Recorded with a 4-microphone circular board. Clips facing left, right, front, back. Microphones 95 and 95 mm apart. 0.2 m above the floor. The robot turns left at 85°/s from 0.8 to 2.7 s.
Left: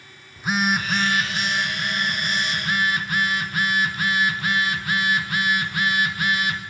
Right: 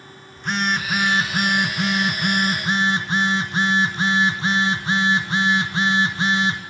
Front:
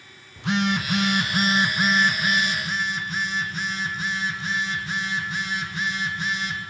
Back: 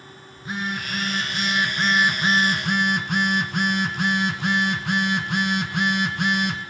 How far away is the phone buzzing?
About 2 m.